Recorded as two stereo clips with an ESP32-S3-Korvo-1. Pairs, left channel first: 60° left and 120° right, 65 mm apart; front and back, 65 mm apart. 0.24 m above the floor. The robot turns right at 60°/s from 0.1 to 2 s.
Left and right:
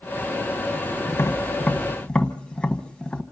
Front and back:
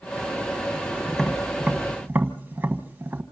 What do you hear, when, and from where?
1.1 s tapping: 75° left, 1.3 m; by 3.2 s 130° left, 1.3 m